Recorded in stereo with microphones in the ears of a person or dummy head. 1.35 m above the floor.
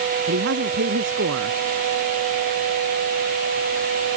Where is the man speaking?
55° right (ahead or behind).